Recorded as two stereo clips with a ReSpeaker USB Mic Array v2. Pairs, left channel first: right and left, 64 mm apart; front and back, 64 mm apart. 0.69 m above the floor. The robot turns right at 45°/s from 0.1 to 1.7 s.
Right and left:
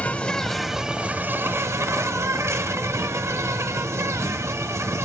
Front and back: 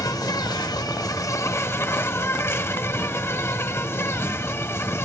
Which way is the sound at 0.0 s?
25° right.